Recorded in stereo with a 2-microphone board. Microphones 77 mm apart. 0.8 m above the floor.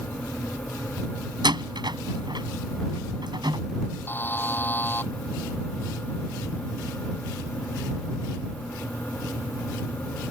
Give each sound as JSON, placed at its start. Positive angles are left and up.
{"t": 1.4, "sound": "a door slam", "side_deg": -70}
{"t": 4.1, "sound": "a buzzer", "side_deg": 25}